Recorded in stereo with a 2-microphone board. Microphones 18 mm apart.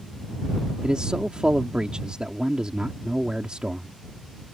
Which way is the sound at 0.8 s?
50° right (ahead or behind).